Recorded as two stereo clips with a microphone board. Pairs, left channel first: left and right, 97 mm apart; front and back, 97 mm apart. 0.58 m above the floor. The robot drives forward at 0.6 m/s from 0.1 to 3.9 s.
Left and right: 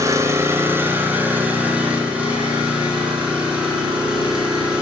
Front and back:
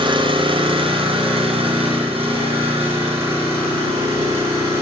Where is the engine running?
150° right, 0.9 m; by 4.8 s 170° right, 3 m.